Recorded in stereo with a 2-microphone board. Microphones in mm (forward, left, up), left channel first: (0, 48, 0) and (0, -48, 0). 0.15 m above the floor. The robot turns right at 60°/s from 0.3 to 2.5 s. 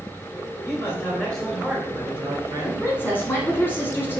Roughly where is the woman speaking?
Left.